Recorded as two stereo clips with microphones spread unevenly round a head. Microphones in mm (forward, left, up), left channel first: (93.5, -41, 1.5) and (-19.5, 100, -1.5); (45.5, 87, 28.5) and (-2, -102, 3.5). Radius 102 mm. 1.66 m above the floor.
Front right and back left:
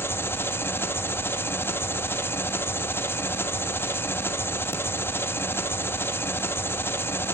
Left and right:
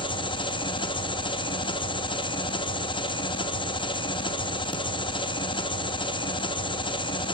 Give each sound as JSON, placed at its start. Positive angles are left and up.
{"t": 0.0, "sound": "an engine running", "azimuth_deg": 25, "distance_m": 1.4}